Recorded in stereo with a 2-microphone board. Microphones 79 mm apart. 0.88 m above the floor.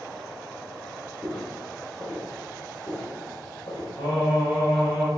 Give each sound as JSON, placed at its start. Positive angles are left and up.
{"t": 1.2, "sound": "footsteps", "side_deg": 5, "distance_m": 1.2}
{"t": 4.0, "sound": "singing", "side_deg": 80, "distance_m": 1.9}